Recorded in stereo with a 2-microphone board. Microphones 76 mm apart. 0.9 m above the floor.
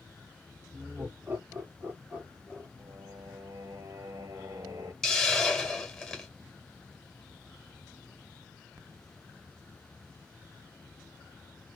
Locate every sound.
0.7 s laughter: 40° right (ahead or behind), 3 m; by 2.7 s 15° right (ahead or behind), 2 m
2.8 s singing: 55° right (ahead or behind), 1.3 m
5.0 s a hiss: 5° left (ahead or behind), 1.8 m